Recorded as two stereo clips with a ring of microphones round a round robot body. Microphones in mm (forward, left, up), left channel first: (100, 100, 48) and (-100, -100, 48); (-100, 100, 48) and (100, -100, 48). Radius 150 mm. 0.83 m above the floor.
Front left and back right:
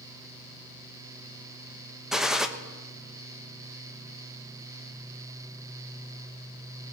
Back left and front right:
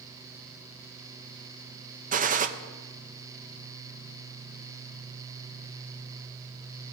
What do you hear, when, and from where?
2.1 s a gunshot: 50° right, 0.9 m